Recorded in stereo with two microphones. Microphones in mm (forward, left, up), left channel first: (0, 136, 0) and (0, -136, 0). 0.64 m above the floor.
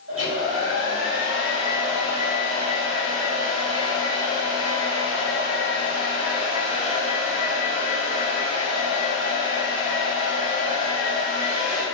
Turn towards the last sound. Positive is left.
turn(degrees=-55)  # may be behind; listen again after turning